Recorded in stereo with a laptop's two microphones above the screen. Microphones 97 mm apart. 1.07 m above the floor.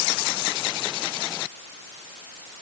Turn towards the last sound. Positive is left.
No sound to turn to.